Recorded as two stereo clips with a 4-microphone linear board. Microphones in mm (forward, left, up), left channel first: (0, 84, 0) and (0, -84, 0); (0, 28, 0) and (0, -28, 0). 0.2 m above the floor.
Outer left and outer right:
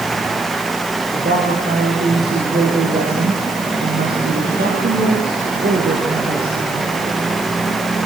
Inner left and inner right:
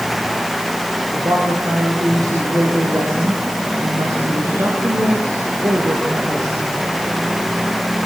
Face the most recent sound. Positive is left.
turn(degrees=-70)  # may be behind; listen again after turning